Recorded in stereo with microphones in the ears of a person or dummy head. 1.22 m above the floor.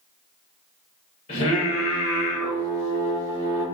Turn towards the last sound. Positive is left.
turn(degrees=30)  # may be behind; listen again after turning